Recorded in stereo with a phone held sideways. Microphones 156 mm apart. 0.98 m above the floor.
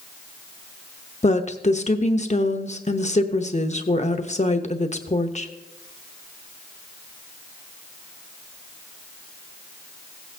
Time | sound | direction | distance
1.2 | a woman speaking | 45° left (ahead or behind) | 0.9 m